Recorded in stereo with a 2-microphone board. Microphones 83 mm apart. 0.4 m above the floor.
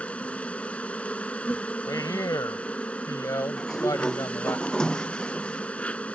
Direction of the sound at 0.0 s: 15° left (ahead or behind).